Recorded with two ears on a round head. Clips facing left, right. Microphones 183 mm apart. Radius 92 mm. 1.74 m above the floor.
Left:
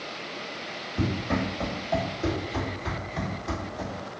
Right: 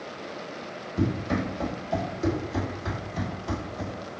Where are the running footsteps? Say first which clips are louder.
Right 1 dB; 30° right (ahead or behind), 1.9 m; by 4.1 s centre (ahead or behind), 2 m.